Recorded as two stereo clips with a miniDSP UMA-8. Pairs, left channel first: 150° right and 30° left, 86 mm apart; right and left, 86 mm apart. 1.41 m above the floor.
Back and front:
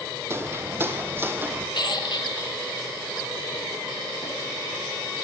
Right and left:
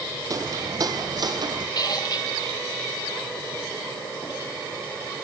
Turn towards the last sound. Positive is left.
turn(degrees=-125)